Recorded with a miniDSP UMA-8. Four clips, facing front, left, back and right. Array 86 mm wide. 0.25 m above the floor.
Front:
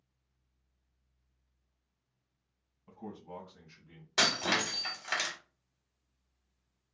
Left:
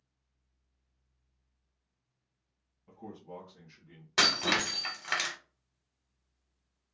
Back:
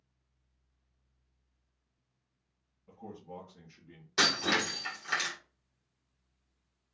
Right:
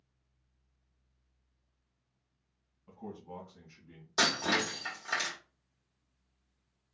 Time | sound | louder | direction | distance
2.9 | a man speaking | right 1 dB, front 1 dB | 10° right | 1.1 m
4.2 | breaking glass | even, back 1 dB | 75° left | 1.6 m